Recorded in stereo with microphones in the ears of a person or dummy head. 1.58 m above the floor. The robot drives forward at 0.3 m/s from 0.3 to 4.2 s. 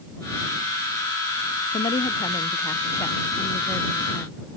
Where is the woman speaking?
25° left (ahead or behind); by 4.5 s 10° left (ahead or behind).